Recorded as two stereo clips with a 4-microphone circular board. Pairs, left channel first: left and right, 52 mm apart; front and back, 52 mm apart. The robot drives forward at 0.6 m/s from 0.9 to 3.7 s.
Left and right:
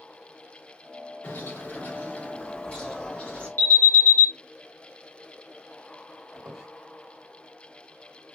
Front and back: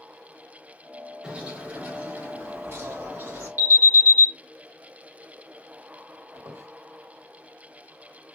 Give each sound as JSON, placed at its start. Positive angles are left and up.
{"t": 1.2, "sound": "a bird", "azimuth_deg": 110, "distance_m": 0.9}
{"t": 3.6, "sound": "an alarm", "azimuth_deg": 140, "distance_m": 1.7}
{"t": 6.3, "sound": "a squeak", "azimuth_deg": -170, "distance_m": 1.4}